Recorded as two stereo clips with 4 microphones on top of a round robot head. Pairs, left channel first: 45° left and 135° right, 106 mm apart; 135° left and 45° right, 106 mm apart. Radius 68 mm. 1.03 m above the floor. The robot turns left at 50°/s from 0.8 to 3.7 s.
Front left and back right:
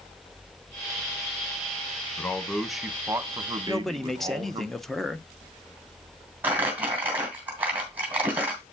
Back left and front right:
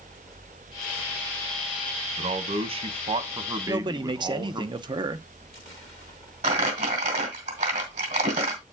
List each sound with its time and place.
2.2 s a man speaking: 20° right, 1.0 m; by 4.7 s 95° right, 1.0 m
3.7 s a man speaking: 40° right, 0.7 m; by 5.3 s 45° right, 0.7 m
6.4 s crumpling: 65° right, 2.5 m